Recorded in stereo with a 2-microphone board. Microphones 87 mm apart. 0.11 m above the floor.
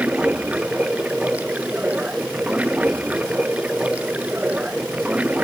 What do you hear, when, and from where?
0.0 s running water: 15° right (ahead or behind)